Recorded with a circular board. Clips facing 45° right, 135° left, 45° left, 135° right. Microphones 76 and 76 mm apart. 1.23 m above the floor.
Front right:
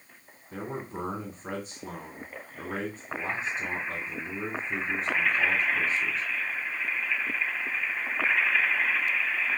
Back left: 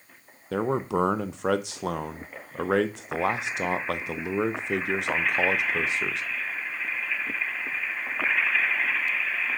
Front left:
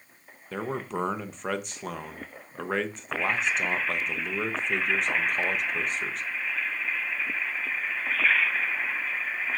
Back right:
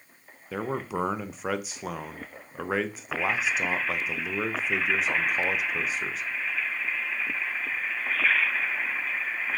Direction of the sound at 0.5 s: 140° left.